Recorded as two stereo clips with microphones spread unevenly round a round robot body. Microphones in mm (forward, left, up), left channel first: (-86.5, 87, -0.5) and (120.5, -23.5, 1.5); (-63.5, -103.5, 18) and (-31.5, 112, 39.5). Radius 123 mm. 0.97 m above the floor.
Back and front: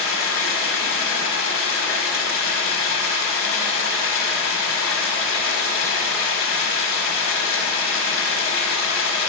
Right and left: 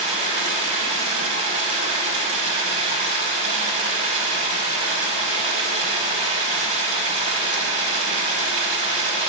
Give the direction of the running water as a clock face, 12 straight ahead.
8 o'clock.